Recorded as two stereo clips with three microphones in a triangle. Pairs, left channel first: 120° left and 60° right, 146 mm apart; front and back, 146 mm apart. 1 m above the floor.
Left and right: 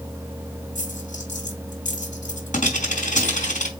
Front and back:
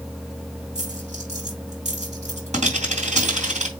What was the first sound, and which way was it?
A dropped coin, 145° left.